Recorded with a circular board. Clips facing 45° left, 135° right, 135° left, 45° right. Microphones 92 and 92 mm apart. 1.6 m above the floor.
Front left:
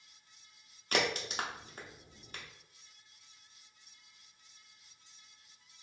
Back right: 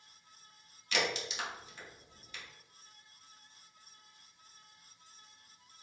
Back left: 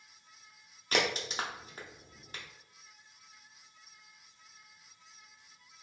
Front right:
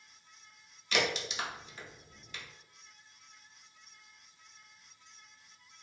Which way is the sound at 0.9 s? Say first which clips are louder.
Front left 2 dB, back left 1 dB; 90° left.